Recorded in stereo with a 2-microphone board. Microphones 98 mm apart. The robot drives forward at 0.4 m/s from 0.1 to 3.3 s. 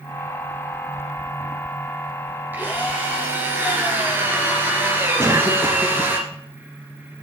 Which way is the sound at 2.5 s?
20° right (ahead or behind).